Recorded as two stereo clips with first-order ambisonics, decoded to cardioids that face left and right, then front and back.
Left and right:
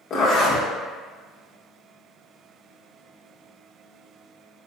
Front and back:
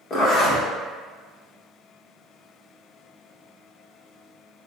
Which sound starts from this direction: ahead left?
A zipper, at 0.1 s.